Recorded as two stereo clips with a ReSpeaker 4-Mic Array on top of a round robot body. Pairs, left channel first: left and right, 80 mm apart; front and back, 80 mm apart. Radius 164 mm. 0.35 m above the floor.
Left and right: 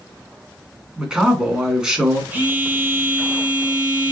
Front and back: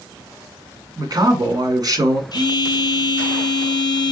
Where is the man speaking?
165° right, 1.9 m.